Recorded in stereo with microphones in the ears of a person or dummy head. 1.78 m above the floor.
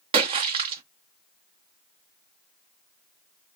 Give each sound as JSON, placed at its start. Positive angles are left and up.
{"t": 0.1, "sound": "a splash", "side_deg": -25, "distance_m": 0.8}